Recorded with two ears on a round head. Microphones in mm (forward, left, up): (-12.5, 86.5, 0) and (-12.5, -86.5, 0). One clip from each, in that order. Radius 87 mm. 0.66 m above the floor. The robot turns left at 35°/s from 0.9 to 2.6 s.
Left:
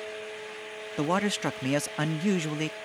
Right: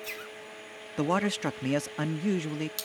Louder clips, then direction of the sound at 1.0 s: Left 1 dB; 170° left.